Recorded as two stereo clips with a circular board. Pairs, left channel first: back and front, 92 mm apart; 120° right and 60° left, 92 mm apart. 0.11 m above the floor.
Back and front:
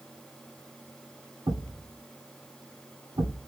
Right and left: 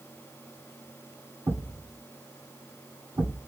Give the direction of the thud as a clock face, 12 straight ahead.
11 o'clock.